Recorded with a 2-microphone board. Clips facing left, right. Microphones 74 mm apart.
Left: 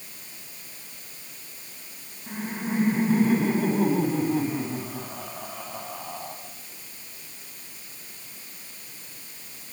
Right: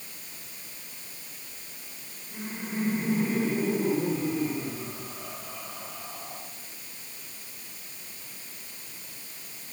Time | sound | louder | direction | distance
2.3 | laughter | left 6 dB | 65° left (ahead or behind) | 5 m